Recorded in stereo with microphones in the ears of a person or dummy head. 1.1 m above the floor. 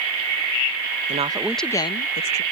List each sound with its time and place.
1.1 s a woman speaking: 35° right (ahead or behind); by 2.4 s 50° left (ahead or behind)